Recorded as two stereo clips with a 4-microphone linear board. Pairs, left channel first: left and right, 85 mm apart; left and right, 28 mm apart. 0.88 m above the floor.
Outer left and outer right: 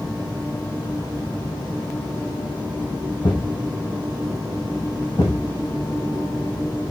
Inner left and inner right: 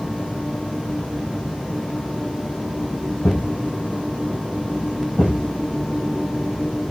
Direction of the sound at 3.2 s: 50° left (ahead or behind).